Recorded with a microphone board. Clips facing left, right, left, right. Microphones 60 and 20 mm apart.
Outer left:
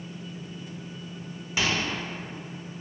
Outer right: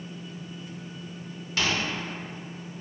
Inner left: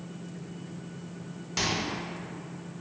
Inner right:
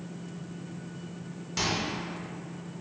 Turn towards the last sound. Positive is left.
turn(degrees=15)  # may be behind; listen again after turning